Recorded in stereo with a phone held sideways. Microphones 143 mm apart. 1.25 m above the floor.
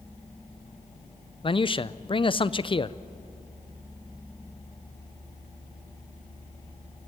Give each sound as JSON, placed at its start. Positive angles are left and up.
{"t": 1.4, "sound": "a man speaking", "side_deg": 35, "distance_m": 0.5}